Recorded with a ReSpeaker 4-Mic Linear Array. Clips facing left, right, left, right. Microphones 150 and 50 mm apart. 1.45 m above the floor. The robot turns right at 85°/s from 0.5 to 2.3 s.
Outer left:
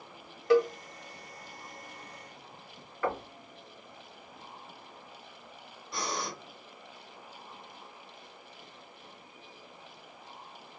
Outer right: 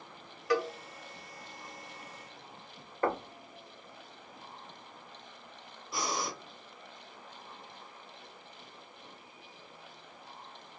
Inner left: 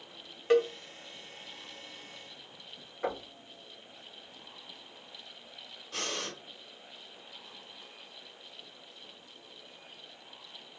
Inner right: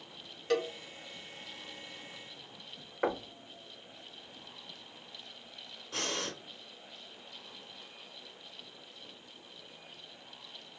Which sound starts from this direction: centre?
Breathing, at 5.9 s.